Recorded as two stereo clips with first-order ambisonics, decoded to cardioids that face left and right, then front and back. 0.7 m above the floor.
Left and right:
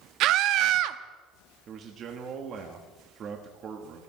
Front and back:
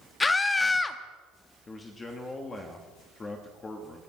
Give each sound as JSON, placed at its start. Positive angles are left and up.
{"t": 0.2, "sound": "a scream", "azimuth_deg": -75, "distance_m": 0.8}
{"t": 1.7, "sound": "a man speaking", "azimuth_deg": -60, "distance_m": 1.3}